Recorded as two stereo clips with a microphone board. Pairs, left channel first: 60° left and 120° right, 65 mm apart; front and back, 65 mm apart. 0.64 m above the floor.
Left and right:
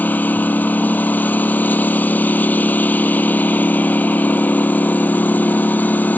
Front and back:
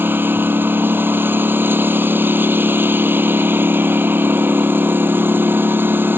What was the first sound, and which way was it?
A lawn mower, 125° left.